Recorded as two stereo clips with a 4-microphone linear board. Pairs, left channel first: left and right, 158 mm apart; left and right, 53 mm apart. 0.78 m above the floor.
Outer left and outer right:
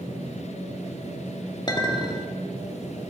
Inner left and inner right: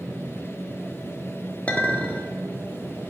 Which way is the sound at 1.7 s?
30° left (ahead or behind).